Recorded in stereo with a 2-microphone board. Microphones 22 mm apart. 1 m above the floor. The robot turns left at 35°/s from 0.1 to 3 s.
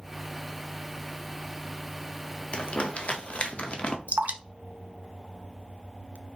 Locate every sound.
2.5 s crumpling: 55° left (ahead or behind), 0.7 m
4.1 s dripping: 90° right, 0.6 m